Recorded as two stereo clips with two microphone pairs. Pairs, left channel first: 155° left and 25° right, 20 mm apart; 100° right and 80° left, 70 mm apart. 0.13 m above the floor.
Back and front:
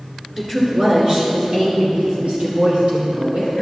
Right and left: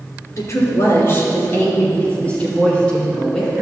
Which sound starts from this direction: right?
A woman speaking, at 0.4 s.